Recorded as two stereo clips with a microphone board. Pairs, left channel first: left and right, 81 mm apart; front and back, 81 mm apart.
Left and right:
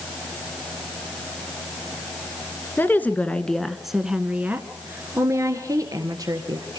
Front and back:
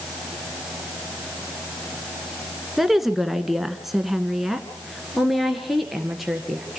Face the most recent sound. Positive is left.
turn(degrees=-90)